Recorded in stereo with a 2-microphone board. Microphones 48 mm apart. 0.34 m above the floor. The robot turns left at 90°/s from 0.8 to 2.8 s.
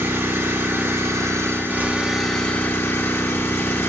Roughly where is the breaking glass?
No breaking glass in this recording.